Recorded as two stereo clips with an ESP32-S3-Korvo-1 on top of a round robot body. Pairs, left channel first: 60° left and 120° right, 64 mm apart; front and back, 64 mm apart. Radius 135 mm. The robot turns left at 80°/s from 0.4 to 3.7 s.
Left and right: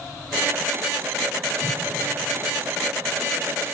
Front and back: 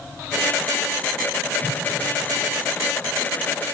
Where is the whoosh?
15° left, 7 m; by 1.9 s 5° right, 7 m.